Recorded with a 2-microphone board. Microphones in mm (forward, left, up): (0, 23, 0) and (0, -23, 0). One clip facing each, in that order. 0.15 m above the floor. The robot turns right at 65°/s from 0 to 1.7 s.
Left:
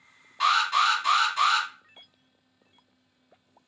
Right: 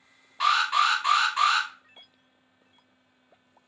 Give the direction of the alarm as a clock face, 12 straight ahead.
6 o'clock.